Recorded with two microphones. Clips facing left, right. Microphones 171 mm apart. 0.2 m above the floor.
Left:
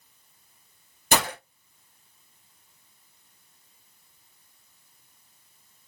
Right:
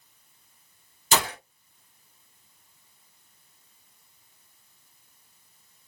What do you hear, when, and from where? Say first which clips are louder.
1.1 s breaking glass: left 1 dB; 60° left (ahead or behind), 2 m